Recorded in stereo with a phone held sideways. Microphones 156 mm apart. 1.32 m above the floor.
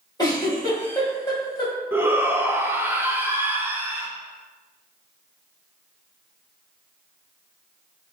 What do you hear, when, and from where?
0.2 s a giggle: 25° left (ahead or behind), 1.3 m
1.9 s a shout: 15° right (ahead or behind), 0.6 m